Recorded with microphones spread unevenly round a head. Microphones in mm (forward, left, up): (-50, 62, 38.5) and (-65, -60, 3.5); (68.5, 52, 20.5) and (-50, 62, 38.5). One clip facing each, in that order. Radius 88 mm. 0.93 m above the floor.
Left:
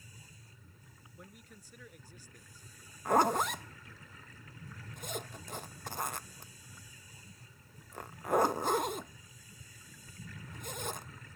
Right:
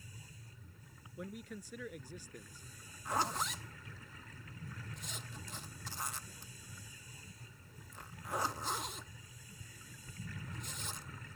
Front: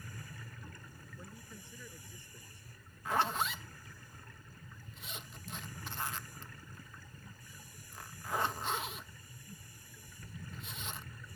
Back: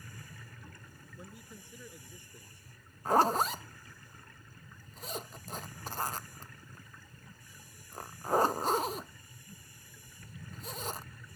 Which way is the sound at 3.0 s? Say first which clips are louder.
Left 9 dB, back 7 dB; 125° left.